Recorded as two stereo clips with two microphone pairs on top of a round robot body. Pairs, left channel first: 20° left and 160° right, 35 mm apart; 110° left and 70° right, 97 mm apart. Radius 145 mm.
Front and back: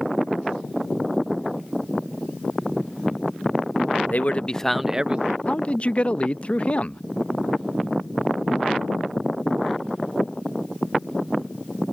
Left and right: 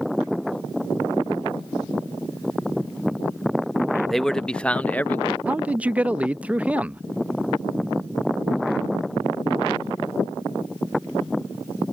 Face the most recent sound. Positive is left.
turn(degrees=-20)